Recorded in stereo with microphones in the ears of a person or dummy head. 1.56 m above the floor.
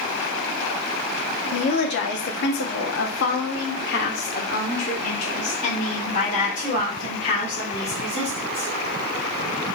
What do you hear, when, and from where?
1.5 s a woman speaking: 55° left (ahead or behind), 1.1 m; by 8.7 s 35° left (ahead or behind), 3.5 m